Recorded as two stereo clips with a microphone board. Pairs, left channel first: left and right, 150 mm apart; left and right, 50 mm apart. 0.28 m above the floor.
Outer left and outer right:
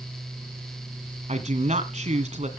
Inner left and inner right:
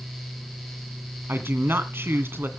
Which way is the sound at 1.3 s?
50° right (ahead or behind).